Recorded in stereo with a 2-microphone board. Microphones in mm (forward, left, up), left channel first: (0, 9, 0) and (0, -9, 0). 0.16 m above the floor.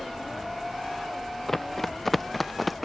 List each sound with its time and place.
1.5 s running footsteps: 15° left (ahead or behind); by 2.9 s centre (ahead or behind)